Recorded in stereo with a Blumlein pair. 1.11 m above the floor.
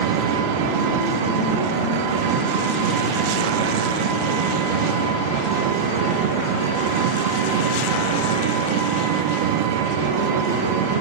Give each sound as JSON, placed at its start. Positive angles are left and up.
{"t": 0.0, "sound": "an engine running", "azimuth_deg": -50, "distance_m": 2.0}